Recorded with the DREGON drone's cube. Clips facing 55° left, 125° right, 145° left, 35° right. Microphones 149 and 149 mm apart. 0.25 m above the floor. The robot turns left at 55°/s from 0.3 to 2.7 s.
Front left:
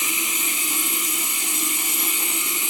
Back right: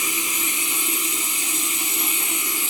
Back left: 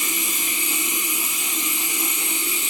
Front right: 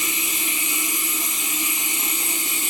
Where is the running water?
120° left, 0.9 m; by 2.7 s 15° right, 0.9 m.